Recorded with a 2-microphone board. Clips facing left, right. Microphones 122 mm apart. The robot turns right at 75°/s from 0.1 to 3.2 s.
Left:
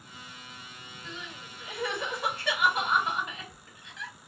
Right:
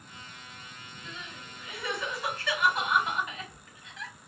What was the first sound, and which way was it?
Crying, 15° right (ahead or behind).